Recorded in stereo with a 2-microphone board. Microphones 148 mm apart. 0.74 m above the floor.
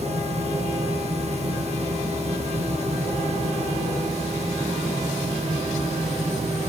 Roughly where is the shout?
I don't hear a shout.